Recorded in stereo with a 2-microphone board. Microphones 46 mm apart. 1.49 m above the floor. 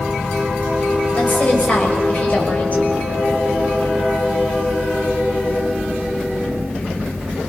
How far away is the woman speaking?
About 6.5 m.